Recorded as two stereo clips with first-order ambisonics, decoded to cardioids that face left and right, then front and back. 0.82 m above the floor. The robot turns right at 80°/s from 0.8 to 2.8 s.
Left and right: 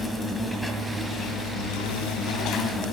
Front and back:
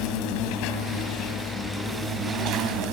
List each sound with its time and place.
0.0 s an insect: 5° left, 1.8 m; by 2.9 s 165° left, 1.8 m